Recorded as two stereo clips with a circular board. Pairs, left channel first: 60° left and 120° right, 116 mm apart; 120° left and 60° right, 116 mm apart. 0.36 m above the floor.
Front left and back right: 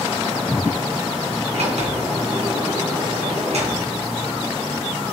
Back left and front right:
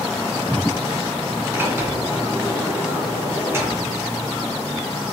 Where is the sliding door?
130° right, 3 m.